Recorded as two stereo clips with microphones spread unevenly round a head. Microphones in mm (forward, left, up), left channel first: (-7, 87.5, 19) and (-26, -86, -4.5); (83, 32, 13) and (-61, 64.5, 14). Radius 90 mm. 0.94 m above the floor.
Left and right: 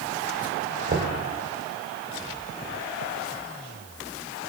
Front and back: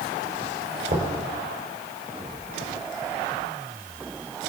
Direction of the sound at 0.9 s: 135° right.